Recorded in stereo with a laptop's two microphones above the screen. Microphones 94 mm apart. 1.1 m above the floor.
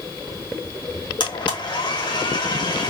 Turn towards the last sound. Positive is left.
turn(degrees=55)  # may be behind; listen again after turning